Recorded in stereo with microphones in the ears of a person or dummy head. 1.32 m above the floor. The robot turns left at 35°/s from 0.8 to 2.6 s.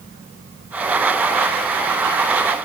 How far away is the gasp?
No gasp in this recording.